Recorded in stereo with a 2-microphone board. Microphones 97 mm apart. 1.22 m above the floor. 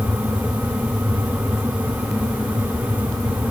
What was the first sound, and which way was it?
Only background noise.